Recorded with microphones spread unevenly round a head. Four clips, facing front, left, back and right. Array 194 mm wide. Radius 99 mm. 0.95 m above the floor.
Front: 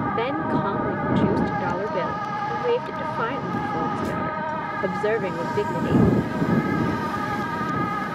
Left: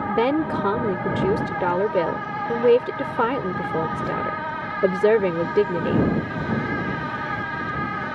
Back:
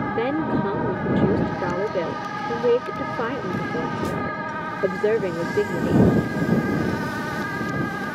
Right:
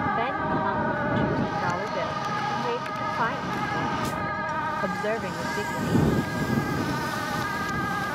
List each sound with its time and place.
0.1 s a woman speaking: 115° left